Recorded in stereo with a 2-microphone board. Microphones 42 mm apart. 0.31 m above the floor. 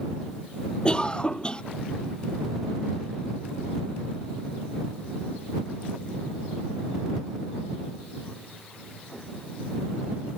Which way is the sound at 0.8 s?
20° left (ahead or behind).